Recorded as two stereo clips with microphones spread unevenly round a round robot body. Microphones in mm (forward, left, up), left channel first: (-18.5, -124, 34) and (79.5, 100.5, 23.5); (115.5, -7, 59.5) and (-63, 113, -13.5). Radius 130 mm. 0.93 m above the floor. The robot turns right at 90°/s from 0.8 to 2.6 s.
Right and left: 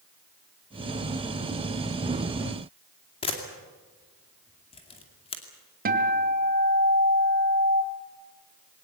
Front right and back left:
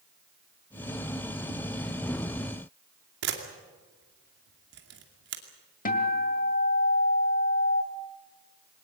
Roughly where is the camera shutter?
Behind.